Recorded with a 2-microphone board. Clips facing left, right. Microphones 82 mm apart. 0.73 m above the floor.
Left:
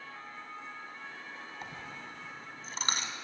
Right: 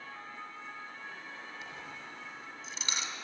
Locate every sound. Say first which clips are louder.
1.6 s a dropped coin: left 1 dB; 50° left (ahead or behind), 2 m